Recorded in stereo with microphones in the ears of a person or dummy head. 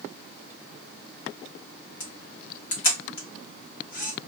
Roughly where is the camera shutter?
Left.